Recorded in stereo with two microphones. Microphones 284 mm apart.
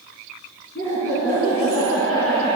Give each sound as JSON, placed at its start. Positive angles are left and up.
{"t": 0.8, "sound": "laughter", "side_deg": 40, "distance_m": 2.5}